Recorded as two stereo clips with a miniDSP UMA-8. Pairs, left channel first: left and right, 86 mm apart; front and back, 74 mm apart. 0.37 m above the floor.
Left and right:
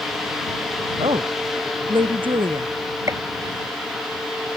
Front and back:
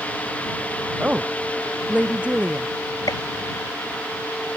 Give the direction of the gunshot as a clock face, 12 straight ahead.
1 o'clock.